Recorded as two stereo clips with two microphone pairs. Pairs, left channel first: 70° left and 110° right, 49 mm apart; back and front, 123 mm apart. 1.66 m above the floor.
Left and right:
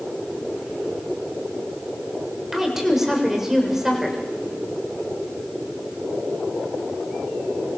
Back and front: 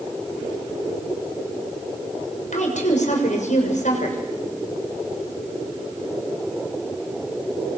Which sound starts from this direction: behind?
A woman speaking, at 2.5 s.